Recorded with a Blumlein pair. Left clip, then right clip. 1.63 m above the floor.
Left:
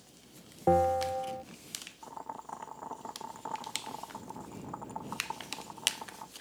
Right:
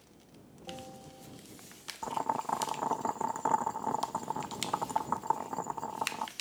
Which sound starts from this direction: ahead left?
A bell, at 0.7 s.